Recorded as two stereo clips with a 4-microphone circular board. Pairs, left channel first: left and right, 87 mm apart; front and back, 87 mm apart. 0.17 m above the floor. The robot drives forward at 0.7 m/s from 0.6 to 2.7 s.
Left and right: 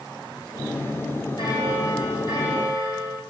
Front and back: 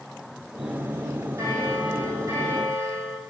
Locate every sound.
1.4 s a bell: 125° left, 6.5 m; by 3.2 s 130° left, 7 m